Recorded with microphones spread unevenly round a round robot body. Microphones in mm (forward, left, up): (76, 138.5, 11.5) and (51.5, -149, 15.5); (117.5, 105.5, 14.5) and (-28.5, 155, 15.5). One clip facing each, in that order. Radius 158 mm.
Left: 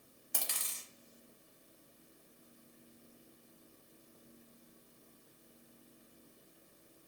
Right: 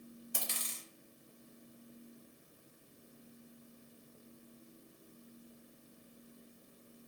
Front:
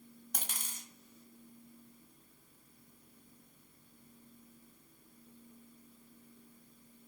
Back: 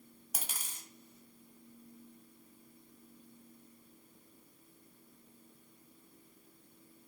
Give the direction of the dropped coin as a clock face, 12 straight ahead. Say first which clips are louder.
Left 1 dB, even; 9 o'clock.